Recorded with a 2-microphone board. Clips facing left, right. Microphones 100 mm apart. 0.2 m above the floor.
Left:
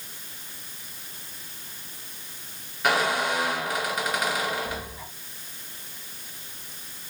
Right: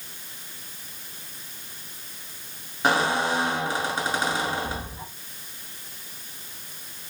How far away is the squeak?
About 1.9 m.